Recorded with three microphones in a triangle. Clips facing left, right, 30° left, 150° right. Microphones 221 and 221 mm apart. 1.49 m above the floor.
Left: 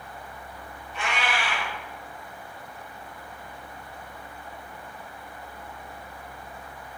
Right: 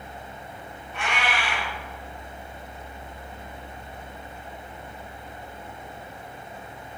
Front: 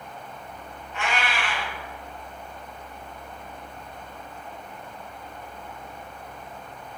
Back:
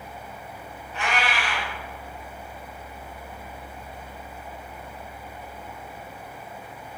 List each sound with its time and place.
0.9 s a cat meowing: 100° right, 1.4 m